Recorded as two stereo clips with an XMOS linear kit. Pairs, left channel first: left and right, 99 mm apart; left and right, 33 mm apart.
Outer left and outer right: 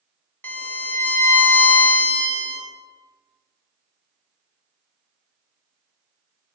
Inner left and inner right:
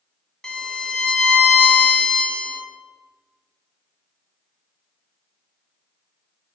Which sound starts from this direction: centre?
A violin, at 0.4 s.